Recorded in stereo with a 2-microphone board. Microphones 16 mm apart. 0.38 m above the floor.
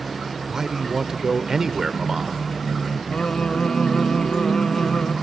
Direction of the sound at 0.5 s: 25° right (ahead or behind).